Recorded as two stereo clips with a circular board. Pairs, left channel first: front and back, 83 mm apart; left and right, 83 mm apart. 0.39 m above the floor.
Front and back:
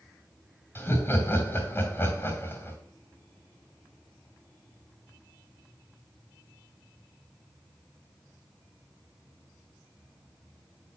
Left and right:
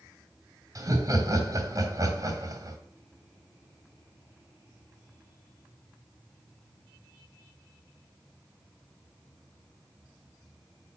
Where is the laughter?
60° right, 2.5 m.